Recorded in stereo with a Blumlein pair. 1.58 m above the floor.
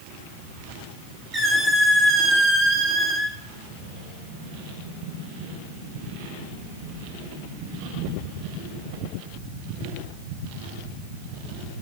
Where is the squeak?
15° right, 2.5 m.